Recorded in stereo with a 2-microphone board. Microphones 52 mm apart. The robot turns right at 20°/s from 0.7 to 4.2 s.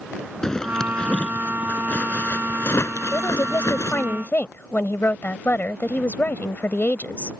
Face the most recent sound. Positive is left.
turn(degrees=35)  # may be behind; listen again after turning